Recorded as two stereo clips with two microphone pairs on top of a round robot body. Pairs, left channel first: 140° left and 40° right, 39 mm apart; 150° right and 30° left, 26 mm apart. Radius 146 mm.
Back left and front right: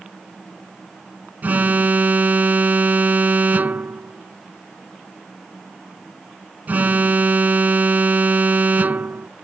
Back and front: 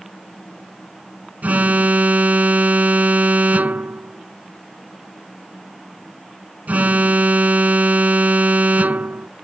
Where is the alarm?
5° left.